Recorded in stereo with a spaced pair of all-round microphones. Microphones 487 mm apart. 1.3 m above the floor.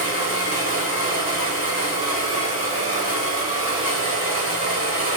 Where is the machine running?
45° right (ahead or behind), 0.8 m.